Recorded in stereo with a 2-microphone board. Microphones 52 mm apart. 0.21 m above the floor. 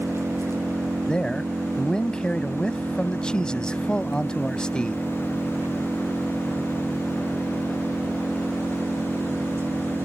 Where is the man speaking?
15° left (ahead or behind).